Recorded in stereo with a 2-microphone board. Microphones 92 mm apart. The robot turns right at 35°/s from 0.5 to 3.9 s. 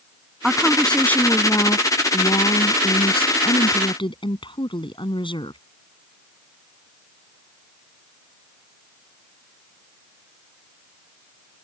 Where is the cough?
I don't hear a cough.